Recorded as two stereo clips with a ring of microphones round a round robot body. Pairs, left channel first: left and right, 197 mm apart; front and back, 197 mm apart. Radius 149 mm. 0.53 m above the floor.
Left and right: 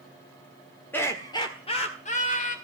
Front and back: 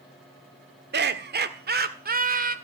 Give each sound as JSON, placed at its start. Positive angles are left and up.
{"t": 0.9, "sound": "laughter", "azimuth_deg": 170, "distance_m": 1.7}